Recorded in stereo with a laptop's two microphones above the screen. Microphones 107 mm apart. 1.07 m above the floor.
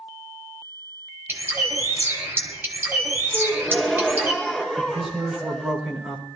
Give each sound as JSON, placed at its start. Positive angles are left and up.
{"t": 1.3, "sound": "a bird", "side_deg": -20, "distance_m": 1.7}
{"t": 3.3, "sound": "a gasp", "side_deg": 5, "distance_m": 2.5}
{"t": 4.8, "sound": "a man speaking", "side_deg": -5, "distance_m": 4.0}